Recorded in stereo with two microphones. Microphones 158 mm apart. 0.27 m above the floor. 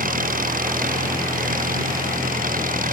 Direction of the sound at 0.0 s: 60° right (ahead or behind).